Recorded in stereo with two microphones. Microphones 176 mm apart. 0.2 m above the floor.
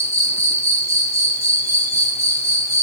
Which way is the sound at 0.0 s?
40° left (ahead or behind).